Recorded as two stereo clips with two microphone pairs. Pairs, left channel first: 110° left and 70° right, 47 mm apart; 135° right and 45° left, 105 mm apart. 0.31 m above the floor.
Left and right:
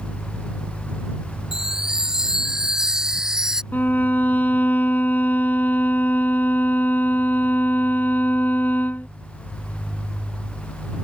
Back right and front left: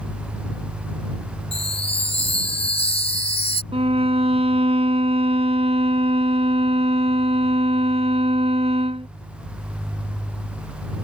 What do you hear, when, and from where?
1.5 s a chime: 150° right
3.7 s a violin: 55° left